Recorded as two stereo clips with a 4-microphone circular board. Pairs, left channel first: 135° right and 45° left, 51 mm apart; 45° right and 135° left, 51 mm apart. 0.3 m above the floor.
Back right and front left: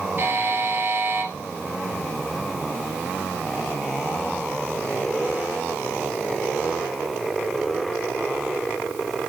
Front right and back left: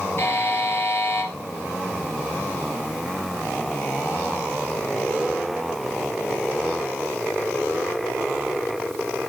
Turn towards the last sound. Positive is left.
turn(degrees=0)